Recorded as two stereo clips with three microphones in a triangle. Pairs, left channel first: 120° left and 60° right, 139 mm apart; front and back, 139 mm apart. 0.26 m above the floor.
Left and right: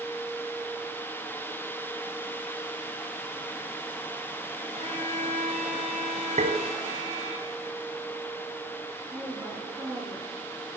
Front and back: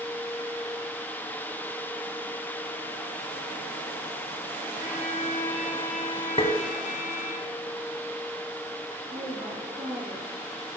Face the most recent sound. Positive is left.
turn(degrees=-130)